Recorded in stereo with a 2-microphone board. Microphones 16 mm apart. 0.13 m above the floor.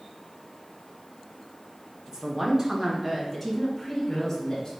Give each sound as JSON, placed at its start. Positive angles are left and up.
{"t": 2.1, "sound": "a woman speaking", "side_deg": -40, "distance_m": 1.9}